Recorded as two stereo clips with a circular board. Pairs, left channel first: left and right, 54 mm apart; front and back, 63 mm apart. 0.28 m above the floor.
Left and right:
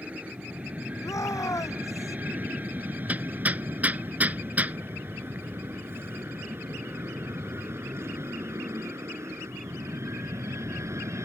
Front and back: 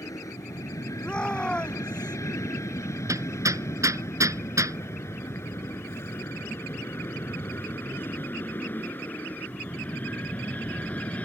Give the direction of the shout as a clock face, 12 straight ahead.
9 o'clock.